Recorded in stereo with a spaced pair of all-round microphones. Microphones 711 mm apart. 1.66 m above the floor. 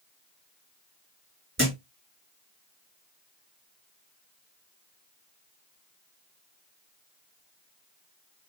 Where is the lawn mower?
I don't hear a lawn mower.